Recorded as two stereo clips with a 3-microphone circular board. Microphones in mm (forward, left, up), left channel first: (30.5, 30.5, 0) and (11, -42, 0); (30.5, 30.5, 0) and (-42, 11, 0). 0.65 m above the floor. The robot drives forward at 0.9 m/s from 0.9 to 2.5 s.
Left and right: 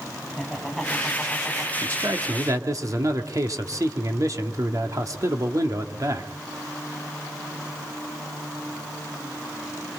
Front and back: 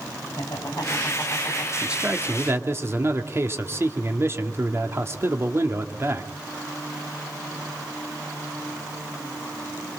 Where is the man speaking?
95° right, 1.4 m; by 6.3 s 125° right, 1.5 m.